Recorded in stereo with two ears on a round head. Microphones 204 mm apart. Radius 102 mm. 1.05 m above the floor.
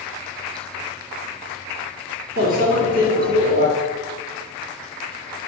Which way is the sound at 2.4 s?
40° left (ahead or behind).